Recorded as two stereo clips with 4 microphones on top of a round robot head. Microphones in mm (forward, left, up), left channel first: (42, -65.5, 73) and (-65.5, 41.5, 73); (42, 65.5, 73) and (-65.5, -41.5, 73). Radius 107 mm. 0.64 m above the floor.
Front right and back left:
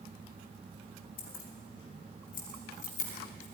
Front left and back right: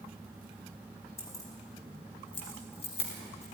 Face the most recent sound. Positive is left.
turn(degrees=-5)